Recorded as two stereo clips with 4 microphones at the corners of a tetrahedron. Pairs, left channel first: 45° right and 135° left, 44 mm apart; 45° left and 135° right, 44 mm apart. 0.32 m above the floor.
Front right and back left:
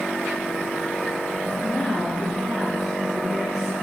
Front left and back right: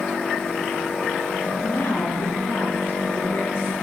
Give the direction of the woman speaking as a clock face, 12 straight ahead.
11 o'clock.